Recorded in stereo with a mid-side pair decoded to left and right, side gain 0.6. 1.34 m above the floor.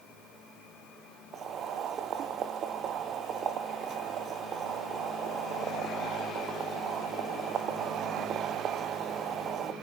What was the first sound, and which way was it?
Boiling, 50° right.